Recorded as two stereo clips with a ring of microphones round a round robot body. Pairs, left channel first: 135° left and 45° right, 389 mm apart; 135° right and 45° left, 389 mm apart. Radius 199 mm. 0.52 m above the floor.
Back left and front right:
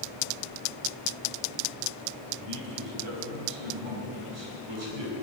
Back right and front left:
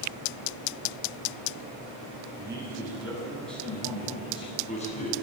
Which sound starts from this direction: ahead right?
A man speaking, at 2.4 s.